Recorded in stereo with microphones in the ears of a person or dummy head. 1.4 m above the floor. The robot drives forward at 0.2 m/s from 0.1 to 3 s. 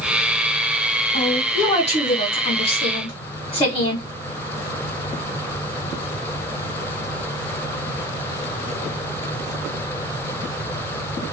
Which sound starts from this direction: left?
A woman speaking, at 1.1 s.